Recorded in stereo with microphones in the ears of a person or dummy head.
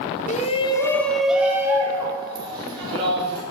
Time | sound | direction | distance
0.3 | a shout | 35° left (ahead or behind) | 0.6 m